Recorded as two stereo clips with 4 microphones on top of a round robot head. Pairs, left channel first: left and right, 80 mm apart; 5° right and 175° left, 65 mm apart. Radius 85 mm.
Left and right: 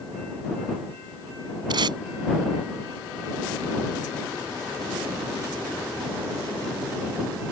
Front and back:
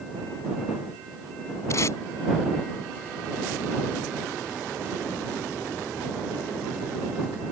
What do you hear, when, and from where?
1.7 s tape being pulled: 55° right